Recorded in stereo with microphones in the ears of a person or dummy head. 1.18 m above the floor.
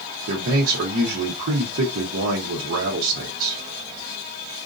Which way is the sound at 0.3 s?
60° right (ahead or behind).